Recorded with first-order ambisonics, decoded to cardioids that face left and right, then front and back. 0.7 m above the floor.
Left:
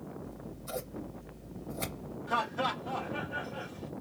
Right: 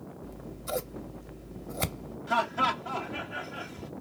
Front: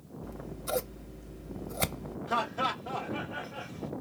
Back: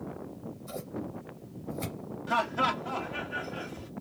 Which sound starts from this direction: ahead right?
Scissors, at 0.2 s.